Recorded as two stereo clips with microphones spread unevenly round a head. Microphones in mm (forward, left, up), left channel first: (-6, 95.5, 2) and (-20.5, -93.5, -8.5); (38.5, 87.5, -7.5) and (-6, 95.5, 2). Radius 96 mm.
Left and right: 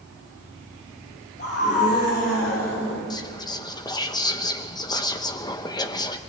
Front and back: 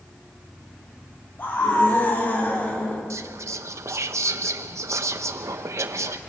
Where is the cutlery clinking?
I don't hear cutlery clinking.